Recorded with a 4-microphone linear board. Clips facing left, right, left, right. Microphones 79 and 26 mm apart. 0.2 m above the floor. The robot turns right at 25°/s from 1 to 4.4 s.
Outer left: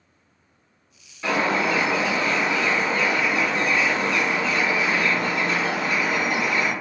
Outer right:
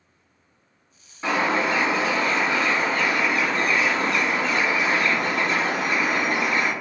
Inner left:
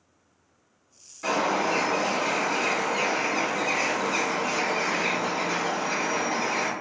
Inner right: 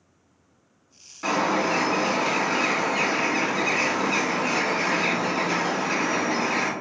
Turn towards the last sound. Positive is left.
turn(degrees=-65)